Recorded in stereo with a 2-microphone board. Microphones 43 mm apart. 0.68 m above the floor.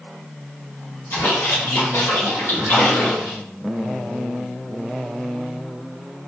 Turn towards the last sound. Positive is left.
turn(degrees=70)  # may be behind; listen again after turning